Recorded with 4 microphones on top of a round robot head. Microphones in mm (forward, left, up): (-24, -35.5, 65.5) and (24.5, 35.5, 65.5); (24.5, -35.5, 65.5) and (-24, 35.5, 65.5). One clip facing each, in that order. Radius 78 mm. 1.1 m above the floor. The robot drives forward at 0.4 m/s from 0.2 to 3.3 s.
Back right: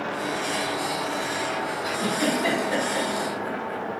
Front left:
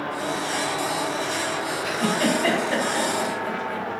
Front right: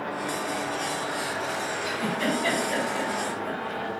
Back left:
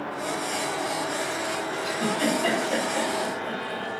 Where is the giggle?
155° left, 3 m; by 3.8 s 160° left, 3.5 m.